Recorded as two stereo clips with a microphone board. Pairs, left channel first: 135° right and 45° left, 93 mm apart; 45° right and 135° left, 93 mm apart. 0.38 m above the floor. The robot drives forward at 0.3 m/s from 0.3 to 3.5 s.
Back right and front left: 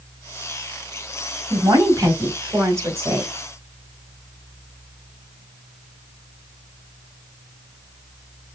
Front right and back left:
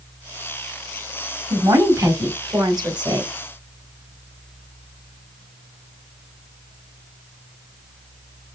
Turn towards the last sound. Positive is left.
turn(degrees=105)